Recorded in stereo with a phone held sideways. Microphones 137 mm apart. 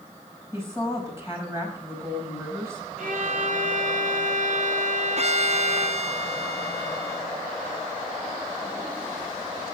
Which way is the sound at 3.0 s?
70° right (ahead or behind).